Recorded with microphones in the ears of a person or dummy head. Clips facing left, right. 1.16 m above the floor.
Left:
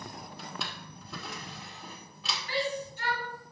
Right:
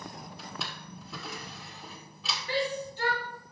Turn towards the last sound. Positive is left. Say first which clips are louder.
# right 2 dB
turn(degrees=-35)  # may be behind; listen again after turning